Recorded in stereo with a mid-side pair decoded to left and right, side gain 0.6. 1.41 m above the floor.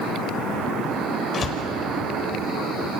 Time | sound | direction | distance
1.3 | a door slam | 35° left | 5 m